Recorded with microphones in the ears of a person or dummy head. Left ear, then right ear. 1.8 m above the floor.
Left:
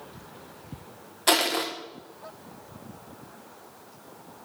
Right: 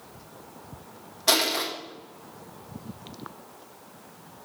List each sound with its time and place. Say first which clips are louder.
1.3 s crushing: even; 45° left (ahead or behind), 1.0 m